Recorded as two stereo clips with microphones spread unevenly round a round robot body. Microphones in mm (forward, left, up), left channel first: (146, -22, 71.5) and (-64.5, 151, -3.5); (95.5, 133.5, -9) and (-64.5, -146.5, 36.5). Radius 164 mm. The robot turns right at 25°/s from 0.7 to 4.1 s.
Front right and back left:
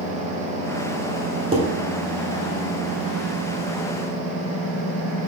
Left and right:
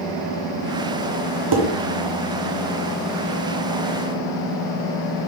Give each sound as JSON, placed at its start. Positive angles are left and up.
{"t": 1.5, "sound": "dishes clattering", "azimuth_deg": -155, "distance_m": 1.3}